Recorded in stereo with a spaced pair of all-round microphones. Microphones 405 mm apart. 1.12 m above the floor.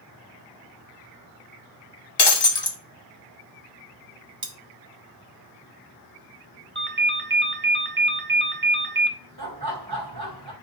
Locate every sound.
2.2 s breaking glass: 75° left (ahead or behind), 0.6 m
4.4 s cutlery clinking: 55° right (ahead or behind), 0.7 m
6.8 s a ringtone: 25° right (ahead or behind), 0.5 m
9.4 s laughter: 65° right (ahead or behind), 1.4 m